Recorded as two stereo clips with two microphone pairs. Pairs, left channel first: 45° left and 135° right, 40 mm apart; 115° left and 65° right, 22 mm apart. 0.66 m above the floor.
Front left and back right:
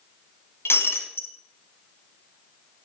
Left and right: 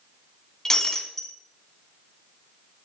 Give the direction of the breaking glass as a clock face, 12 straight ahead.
10 o'clock.